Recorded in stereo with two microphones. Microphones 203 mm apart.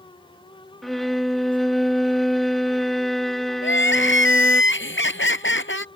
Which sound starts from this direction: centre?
A violin, at 0.8 s.